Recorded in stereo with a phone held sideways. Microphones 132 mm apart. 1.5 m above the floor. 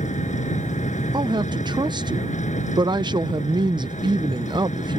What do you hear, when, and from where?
0.0 s an engine running: 65° left (ahead or behind)
1.1 s a woman speaking: 35° right (ahead or behind)